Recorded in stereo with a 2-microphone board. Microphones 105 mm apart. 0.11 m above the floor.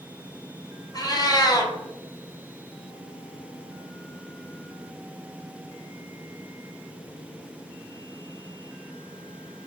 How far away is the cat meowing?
About 0.7 m.